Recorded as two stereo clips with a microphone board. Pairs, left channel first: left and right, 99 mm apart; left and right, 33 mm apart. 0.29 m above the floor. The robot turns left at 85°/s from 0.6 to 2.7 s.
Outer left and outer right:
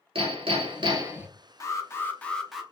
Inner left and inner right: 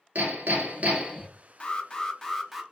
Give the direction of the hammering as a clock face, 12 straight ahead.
4 o'clock.